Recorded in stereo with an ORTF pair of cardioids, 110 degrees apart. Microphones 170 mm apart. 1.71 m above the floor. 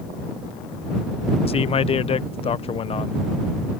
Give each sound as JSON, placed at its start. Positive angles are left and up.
{"t": 1.5, "sound": "a man speaking", "azimuth_deg": 40}